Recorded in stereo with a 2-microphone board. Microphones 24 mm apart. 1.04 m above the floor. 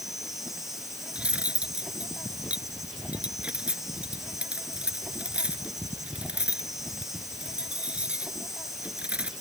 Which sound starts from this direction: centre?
An insect, at 0.0 s.